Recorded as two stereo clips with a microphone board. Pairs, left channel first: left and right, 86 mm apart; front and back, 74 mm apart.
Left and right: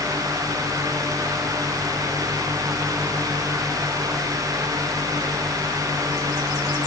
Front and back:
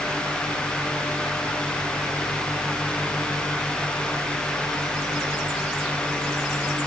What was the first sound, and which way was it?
Only background noise.